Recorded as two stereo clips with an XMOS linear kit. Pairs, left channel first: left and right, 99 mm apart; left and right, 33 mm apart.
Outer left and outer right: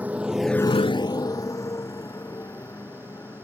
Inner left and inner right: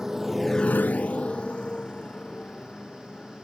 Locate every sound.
0.0 s a motorcycle: 15° right (ahead or behind); by 3.4 s 25° left (ahead or behind)